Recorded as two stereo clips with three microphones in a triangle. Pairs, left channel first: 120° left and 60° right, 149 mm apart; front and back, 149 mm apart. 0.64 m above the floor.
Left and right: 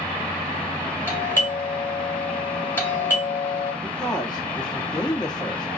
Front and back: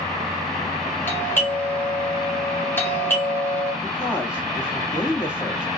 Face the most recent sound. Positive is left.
turn(degrees=100)